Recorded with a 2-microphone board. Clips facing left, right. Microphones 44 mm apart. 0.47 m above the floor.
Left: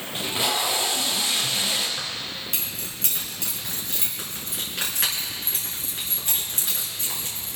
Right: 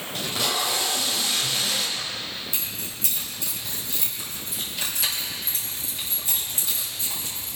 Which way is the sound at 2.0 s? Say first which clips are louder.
Even; 55° left (ahead or behind).